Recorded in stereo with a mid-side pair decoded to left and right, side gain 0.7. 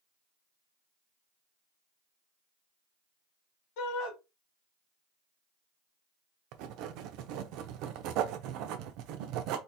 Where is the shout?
70° left, 2 m.